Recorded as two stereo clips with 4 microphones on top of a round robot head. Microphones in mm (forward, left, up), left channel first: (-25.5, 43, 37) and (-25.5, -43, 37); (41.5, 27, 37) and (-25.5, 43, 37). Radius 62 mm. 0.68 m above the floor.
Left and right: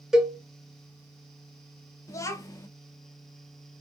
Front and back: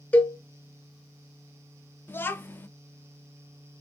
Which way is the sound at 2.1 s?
40° left.